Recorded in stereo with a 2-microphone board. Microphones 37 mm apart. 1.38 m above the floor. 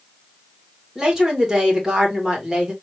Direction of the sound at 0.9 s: 15° right (ahead or behind).